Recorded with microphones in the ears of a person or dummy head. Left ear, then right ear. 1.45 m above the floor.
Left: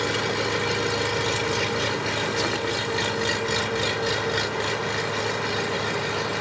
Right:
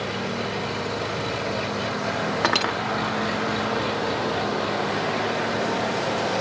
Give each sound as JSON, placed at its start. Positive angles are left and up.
{"t": 0.0, "sound": "an engine running", "side_deg": 50}
{"t": 2.4, "sound": "cutlery clinking", "side_deg": -40}